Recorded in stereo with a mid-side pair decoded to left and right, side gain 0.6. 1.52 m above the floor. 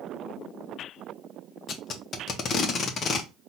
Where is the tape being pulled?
45° left, 0.9 m.